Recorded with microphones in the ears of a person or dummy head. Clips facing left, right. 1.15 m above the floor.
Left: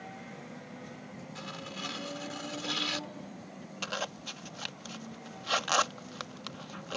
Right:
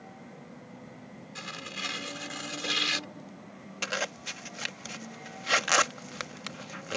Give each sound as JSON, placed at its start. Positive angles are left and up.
{"t": 1.4, "sound": "tearing paper", "side_deg": -35}
{"t": 3.8, "sound": "a zipper", "side_deg": -30}